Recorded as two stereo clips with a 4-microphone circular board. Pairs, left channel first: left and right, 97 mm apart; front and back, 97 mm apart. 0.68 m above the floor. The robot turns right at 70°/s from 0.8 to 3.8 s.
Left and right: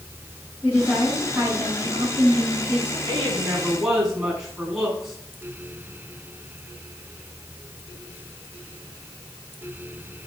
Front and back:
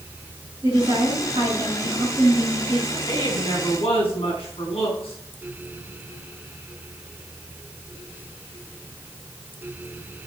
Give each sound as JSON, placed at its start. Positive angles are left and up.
{"t": 0.6, "sound": "a woman speaking", "azimuth_deg": 160, "distance_m": 5.5}
{"t": 3.0, "sound": "a woman speaking", "azimuth_deg": -55, "distance_m": 5.5}